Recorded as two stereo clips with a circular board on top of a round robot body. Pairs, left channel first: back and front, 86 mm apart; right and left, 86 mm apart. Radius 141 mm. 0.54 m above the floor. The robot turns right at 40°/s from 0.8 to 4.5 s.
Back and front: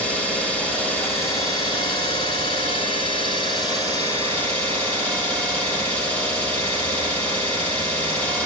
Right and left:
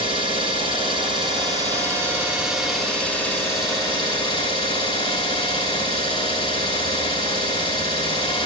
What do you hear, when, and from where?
0.0 s an engine running: 105° left, 6 m; by 8.5 s 110° right, 6 m